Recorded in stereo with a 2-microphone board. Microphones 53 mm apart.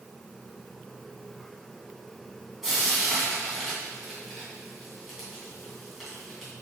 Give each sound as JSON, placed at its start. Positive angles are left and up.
{"t": 2.6, "sound": "frying", "side_deg": -5, "distance_m": 2.5}